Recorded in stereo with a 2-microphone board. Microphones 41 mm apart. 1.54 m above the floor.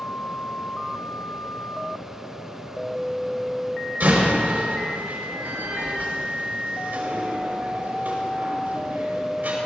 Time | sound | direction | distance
4.0 | a door slam | 55° right (ahead or behind) | 4.5 m